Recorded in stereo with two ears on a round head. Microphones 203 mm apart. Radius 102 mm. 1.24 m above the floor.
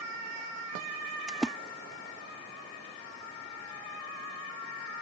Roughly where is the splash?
Centre.